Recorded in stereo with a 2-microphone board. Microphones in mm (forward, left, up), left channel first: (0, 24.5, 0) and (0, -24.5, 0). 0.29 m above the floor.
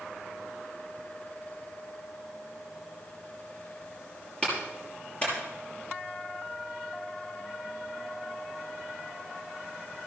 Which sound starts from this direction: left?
A clap, at 4.4 s.